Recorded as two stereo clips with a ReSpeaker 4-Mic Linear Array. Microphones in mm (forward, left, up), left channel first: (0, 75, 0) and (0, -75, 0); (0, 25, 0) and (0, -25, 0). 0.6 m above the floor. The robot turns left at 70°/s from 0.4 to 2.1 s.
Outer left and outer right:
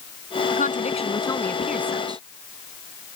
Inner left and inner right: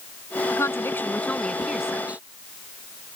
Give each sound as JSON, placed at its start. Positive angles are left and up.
{"t": 0.5, "sound": "a woman speaking", "azimuth_deg": 80}